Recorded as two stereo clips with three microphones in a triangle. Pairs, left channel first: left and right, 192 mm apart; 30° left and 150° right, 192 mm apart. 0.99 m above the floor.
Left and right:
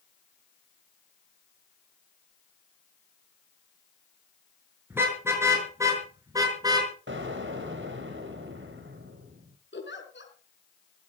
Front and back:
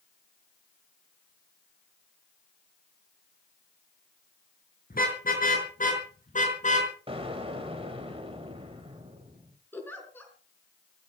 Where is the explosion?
90° right, 3 m.